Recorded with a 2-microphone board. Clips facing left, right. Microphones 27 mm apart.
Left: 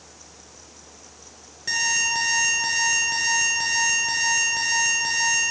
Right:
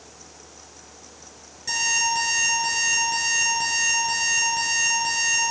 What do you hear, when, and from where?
1.7 s an alarm clock: 20° left (ahead or behind), 5 m